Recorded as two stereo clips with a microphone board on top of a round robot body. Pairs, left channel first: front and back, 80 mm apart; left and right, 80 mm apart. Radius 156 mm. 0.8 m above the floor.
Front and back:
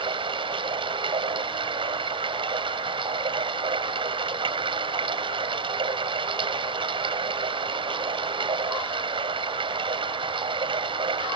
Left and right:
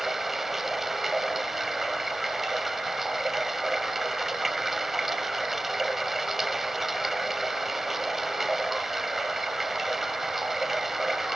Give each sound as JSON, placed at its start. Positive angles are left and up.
{"t": 0.0, "sound": "running water", "azimuth_deg": -175}